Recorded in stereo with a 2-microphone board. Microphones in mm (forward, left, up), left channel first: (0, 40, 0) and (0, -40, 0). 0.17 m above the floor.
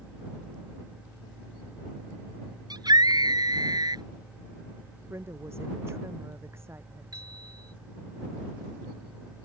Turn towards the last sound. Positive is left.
turn(degrees=-50)  # may be behind; listen again after turning